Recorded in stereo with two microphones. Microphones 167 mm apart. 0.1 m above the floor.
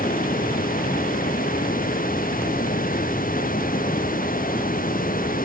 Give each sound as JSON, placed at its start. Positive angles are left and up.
{"t": 0.0, "sound": "running water", "side_deg": 60}